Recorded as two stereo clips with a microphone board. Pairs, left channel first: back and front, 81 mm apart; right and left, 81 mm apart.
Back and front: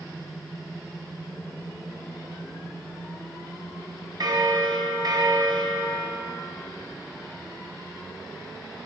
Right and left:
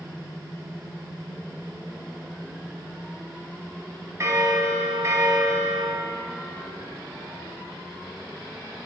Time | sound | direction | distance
4.2 | a bell | 35° left | 0.7 m